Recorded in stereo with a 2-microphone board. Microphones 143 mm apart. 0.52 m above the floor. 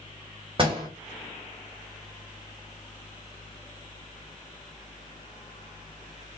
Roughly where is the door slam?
Right.